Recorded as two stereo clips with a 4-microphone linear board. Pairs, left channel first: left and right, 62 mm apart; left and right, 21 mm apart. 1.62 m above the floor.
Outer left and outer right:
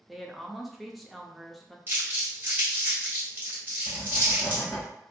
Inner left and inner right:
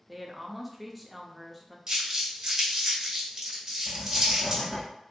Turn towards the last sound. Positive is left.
turn(degrees=20)  # may be behind; listen again after turning